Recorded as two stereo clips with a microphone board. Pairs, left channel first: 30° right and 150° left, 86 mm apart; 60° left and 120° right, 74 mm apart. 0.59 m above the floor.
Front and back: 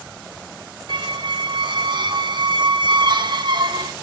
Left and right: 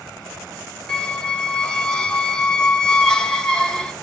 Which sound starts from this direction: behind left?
A squeak, at 0.9 s.